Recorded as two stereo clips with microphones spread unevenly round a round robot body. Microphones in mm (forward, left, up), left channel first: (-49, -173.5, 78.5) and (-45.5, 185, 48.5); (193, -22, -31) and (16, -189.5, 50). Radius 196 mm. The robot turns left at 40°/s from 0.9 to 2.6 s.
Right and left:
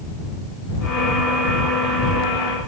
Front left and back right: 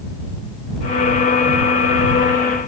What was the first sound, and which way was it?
Only background noise.